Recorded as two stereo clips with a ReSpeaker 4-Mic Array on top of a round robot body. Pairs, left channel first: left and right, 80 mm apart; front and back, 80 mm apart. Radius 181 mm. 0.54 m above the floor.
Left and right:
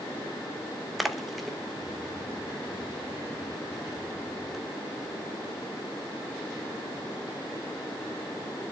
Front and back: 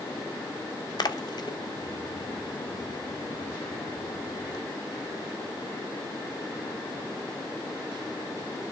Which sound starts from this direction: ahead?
A splash, at 1.0 s.